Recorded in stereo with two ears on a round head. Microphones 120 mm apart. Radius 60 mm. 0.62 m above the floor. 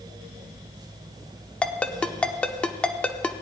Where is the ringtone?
10° left (ahead or behind), 0.7 m.